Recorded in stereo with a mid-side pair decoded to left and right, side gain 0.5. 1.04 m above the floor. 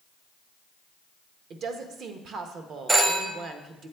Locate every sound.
1.5 s a woman speaking: 60° right, 0.7 m
2.9 s a phone ringing: 25° right, 0.7 m